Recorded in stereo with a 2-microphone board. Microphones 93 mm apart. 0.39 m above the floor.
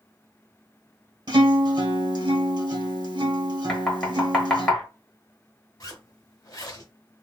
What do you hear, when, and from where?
1.3 s a guitar: 50° right (ahead or behind), 1.1 m
3.7 s knocking: 5° left (ahead or behind), 1.1 m
5.8 s a zipper: 40° left (ahead or behind), 0.8 m